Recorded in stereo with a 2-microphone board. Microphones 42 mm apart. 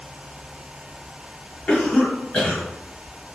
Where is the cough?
25° left (ahead or behind), 1.3 m.